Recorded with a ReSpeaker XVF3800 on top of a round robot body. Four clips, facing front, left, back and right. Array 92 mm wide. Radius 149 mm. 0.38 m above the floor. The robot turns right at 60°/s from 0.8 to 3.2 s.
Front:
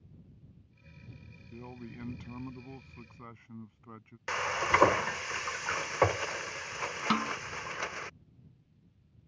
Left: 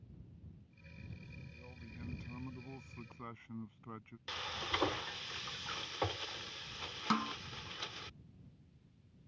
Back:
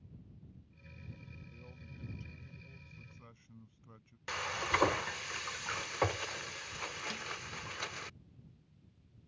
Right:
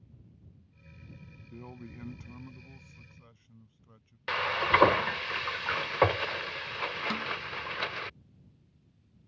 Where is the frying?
60° right.